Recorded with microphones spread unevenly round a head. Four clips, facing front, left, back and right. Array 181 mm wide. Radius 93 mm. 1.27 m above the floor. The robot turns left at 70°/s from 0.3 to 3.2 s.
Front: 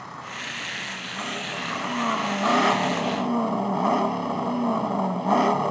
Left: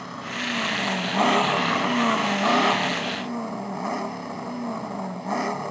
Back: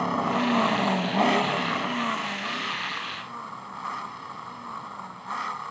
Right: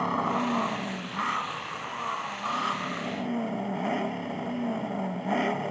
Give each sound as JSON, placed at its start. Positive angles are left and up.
{"t": 0.0, "sound": "an engine running", "azimuth_deg": -160}